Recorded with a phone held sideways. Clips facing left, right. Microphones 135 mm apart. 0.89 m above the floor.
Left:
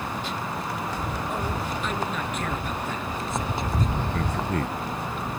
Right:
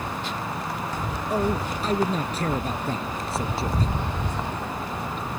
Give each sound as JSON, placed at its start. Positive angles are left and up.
{"t": 1.3, "sound": "a man speaking", "side_deg": -40}
{"t": 4.1, "sound": "a man speaking", "side_deg": 85}